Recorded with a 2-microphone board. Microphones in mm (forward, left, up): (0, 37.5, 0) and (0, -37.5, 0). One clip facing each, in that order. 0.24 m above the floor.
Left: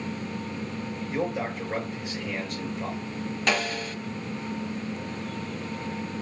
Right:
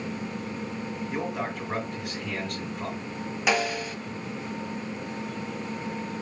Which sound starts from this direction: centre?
A snare drum, at 3.5 s.